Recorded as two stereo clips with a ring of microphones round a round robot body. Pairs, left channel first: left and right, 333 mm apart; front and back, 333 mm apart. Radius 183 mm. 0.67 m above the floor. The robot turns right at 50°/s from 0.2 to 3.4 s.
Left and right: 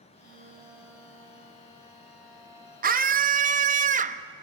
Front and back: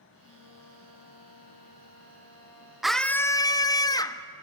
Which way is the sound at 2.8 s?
95° right.